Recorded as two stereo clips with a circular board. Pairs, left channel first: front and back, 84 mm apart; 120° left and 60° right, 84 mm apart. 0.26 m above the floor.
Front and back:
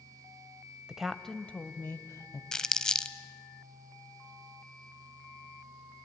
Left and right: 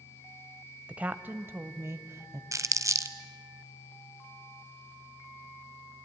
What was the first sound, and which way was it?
A woman speaking, 110° right.